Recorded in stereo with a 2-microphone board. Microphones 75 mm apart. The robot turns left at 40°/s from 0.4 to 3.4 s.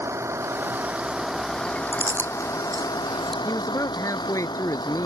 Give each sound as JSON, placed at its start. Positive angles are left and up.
{"t": 0.0, "sound": "a vehicle", "azimuth_deg": -140}
{"t": 1.9, "sound": "chewing", "side_deg": -30}
{"t": 3.5, "sound": "a man speaking", "side_deg": 45}